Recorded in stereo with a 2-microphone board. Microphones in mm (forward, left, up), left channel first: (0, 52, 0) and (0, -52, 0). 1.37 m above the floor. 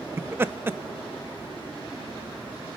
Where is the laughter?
25° right (ahead or behind), 0.7 m.